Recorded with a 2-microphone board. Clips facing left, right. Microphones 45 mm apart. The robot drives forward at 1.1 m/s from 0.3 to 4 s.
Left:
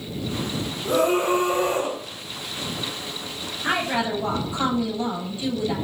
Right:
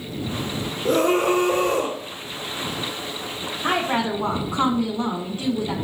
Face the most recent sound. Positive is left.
turn(degrees=-50)  # may be behind; listen again after turning